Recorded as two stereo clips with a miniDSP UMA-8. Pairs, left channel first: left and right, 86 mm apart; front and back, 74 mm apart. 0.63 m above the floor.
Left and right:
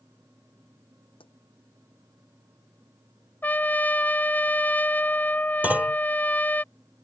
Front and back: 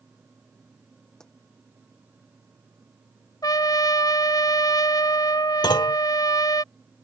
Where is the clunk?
20° right.